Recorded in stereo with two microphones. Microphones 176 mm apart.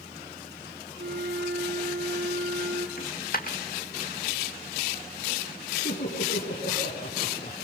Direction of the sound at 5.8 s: 70° left (ahead or behind).